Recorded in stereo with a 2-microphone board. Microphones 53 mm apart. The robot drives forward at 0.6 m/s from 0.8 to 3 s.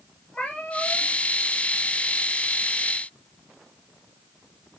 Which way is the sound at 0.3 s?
20° left (ahead or behind).